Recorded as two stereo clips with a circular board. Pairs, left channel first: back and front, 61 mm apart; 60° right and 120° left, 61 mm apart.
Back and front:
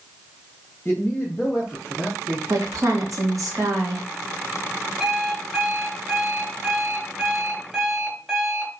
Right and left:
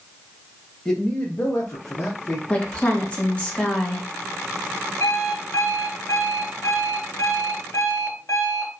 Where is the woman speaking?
5° left, 1.1 m.